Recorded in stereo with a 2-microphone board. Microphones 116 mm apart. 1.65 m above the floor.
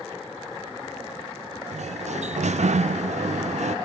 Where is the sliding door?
80° right, 0.6 m.